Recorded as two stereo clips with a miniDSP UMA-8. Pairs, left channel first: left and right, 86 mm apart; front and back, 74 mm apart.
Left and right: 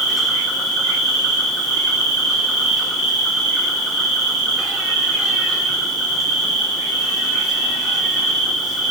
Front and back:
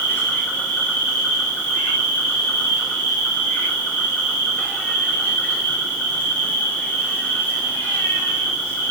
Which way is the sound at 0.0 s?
5° right.